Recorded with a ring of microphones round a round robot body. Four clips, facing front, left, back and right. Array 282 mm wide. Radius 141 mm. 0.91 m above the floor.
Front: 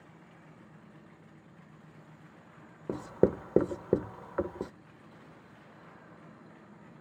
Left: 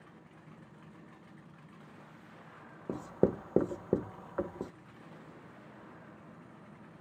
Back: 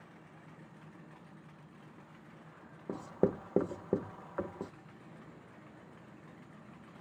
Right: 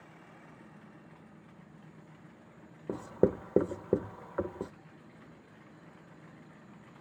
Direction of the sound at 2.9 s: 5° right.